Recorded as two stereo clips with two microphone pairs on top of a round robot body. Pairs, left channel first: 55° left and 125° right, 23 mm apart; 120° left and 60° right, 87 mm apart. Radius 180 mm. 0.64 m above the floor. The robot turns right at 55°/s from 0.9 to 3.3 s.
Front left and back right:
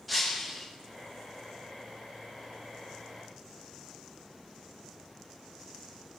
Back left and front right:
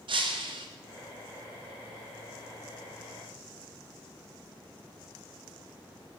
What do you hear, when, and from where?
0.1 s breaking glass: 35° right, 1.5 m